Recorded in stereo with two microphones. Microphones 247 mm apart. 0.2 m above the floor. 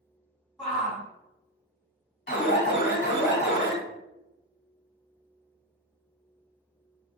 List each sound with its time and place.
0.6 s a shout: centre (ahead or behind), 1.5 m
2.3 s an alarm: 40° left (ahead or behind), 1.2 m